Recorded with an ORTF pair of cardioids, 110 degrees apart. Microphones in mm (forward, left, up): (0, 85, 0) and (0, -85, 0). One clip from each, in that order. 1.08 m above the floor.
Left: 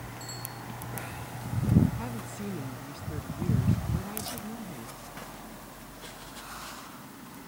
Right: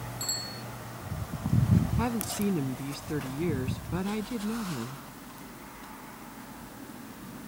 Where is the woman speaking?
45° right.